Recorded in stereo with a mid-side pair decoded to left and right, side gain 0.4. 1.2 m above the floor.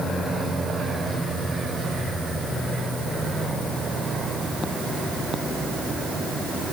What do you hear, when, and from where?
Only background noise.